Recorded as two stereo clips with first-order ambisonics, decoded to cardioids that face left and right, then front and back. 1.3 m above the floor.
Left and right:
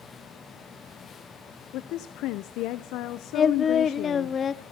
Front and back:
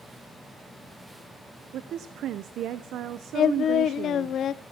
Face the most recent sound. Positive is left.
turn(degrees=35)